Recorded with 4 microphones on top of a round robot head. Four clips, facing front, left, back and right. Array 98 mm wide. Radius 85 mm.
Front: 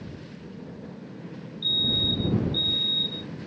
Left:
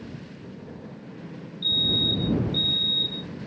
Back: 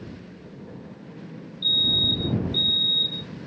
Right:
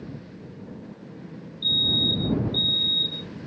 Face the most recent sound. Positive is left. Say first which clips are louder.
# right 1 dB, back 1 dB
turn(degrees=170)